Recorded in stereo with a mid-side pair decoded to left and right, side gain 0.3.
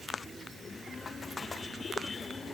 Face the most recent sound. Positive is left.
No sound to turn to.